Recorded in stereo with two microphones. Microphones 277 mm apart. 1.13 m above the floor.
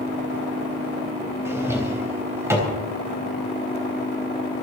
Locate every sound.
1.4 s a drawer: 10° right (ahead or behind), 3.5 m